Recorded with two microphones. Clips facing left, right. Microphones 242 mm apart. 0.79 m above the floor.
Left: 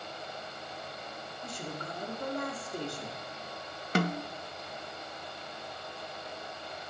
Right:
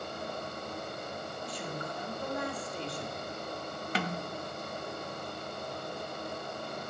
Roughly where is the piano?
No piano in this recording.